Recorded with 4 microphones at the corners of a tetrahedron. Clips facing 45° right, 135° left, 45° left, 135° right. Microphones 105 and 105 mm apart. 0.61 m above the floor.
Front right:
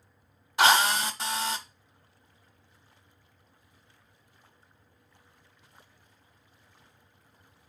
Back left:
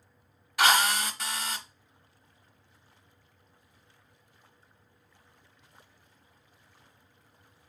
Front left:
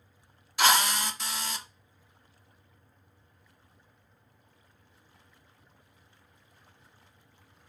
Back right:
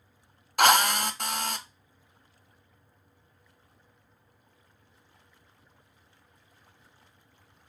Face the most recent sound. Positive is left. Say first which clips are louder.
# front right 2 dB, back right 4 dB
turn(degrees=-105)